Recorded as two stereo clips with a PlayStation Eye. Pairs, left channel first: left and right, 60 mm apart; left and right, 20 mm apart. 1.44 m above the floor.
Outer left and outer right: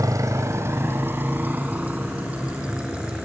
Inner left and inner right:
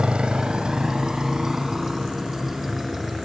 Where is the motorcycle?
70° right (ahead or behind); by 3.2 s 15° right (ahead or behind).